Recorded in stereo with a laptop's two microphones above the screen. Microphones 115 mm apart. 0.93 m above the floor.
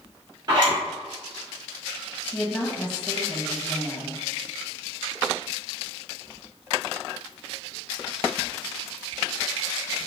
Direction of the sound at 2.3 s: 5° left (ahead or behind).